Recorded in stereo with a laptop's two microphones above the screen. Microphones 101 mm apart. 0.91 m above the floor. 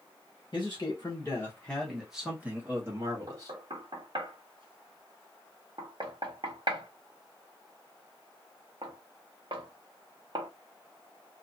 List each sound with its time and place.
0.5 s a man speaking: 45° left (ahead or behind), 1.1 m; by 3.5 s 40° right (ahead or behind), 1.4 m
3.3 s knocking: 60° right (ahead or behind), 0.8 m